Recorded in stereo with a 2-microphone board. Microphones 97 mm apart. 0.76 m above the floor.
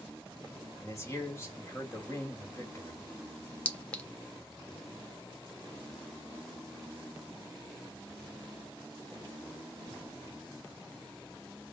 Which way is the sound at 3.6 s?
15° left (ahead or behind).